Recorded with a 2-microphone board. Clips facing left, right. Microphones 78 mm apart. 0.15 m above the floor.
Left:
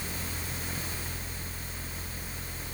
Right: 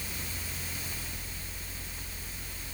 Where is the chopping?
No chopping in this recording.